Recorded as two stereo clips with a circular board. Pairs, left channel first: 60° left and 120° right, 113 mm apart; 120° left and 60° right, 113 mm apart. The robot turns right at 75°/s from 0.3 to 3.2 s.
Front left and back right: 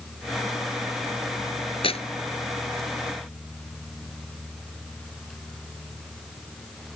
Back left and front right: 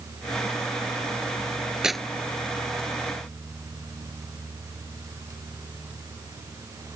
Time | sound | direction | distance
1.8 | tearing paper | 25° left | ?